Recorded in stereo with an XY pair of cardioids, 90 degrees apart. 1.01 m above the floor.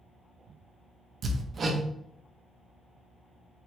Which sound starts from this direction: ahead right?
Hammering, at 1.2 s.